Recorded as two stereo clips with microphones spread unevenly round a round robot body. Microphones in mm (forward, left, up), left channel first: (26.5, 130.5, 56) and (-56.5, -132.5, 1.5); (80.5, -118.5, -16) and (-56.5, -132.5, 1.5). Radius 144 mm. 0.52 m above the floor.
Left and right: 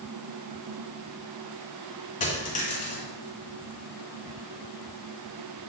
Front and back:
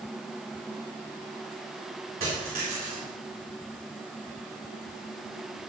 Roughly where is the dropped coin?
Behind left.